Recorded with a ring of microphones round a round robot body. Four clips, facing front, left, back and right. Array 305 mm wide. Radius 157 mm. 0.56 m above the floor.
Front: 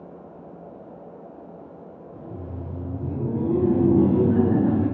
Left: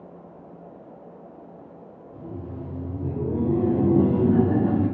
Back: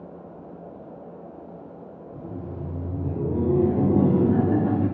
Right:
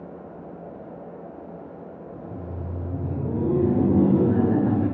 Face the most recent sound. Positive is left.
turn(degrees=145)